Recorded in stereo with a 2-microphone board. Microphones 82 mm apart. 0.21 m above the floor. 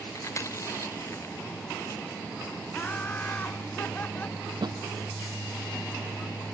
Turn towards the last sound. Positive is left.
turn(degrees=-65)  # may be behind; listen again after turning